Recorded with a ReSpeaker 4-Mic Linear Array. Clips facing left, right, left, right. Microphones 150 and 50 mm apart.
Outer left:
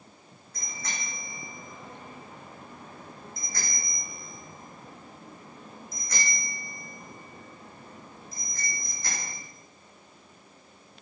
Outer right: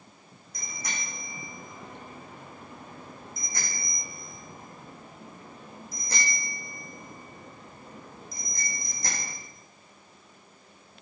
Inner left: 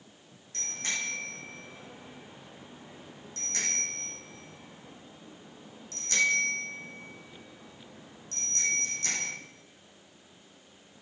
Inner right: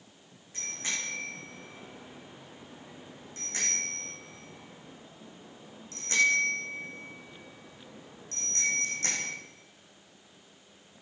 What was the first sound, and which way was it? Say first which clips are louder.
A bicycle bell: outer right 1 dB, inner left 1 dB; 10° right (ahead or behind).